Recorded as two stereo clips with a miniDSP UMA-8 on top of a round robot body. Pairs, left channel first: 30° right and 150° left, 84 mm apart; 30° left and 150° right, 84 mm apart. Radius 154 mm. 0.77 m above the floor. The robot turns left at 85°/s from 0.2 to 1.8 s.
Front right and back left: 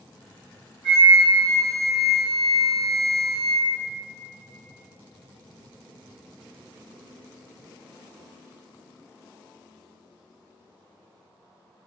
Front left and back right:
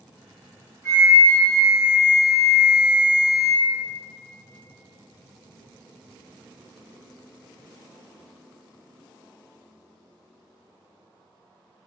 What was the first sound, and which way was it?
A flute, 160° left.